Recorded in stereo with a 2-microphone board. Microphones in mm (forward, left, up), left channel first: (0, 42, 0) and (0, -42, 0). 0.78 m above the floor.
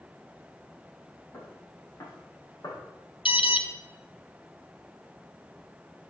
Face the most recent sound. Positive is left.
turn(degrees=80)